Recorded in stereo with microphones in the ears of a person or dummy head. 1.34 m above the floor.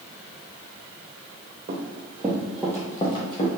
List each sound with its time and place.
1.7 s running footsteps: 35° right (ahead or behind), 1.9 m; by 3.5 s 40° left (ahead or behind), 2.0 m